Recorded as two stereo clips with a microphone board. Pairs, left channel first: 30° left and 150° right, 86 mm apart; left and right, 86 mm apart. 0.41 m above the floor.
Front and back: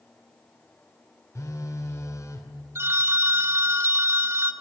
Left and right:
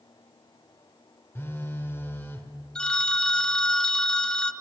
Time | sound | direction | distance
1.4 | a phone buzzing | 45° left | 1.7 m
2.8 | a phone ringing | 165° left | 0.8 m